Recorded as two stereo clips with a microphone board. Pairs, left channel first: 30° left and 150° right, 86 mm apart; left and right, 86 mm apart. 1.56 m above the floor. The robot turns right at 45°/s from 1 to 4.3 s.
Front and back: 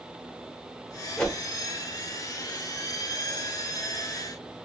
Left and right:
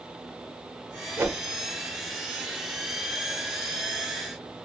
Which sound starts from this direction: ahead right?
A whoosh, at 1.2 s.